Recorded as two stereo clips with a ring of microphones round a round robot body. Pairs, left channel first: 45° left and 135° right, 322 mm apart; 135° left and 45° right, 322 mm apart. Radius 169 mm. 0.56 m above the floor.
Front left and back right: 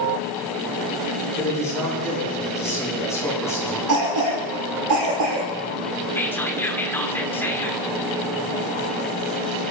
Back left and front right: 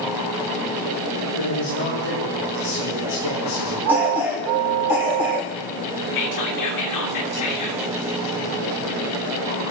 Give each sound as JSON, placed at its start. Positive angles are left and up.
{"t": 1.4, "sound": "a man speaking", "azimuth_deg": 125, "distance_m": 9.0}
{"t": 3.9, "sound": "a cough", "azimuth_deg": -130, "distance_m": 2.0}
{"t": 6.2, "sound": "whispering", "azimuth_deg": 130, "distance_m": 1.9}